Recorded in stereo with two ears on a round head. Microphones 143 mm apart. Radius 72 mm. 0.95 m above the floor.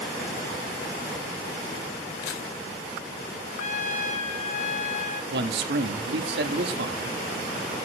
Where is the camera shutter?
80° left, 4 m.